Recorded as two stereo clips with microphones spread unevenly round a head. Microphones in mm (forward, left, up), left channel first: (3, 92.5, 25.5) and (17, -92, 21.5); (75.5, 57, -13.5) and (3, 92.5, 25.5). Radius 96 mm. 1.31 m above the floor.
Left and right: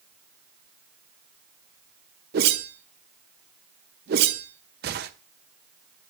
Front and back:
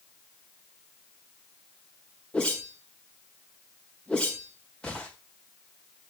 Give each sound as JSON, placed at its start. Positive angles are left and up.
{"t": 2.3, "sound": "a whoosh", "azimuth_deg": -120, "distance_m": 0.8}